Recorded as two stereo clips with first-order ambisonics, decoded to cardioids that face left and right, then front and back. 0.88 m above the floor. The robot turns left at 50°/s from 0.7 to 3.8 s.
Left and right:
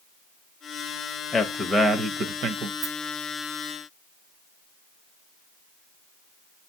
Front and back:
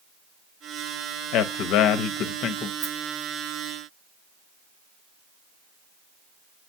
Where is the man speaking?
15° left, 0.6 m; by 2.7 s 55° right, 0.6 m.